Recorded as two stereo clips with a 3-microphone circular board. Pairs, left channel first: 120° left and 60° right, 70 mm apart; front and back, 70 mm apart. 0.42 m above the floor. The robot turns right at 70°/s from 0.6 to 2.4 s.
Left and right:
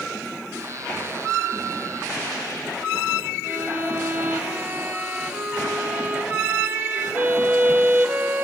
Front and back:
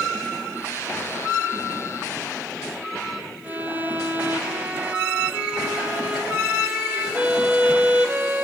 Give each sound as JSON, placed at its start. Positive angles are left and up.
{"t": 3.4, "sound": "a violin", "azimuth_deg": -120, "distance_m": 1.0}